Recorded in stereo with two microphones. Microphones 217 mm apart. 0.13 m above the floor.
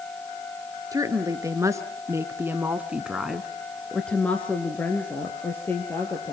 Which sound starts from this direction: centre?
A woman speaking, at 0.9 s.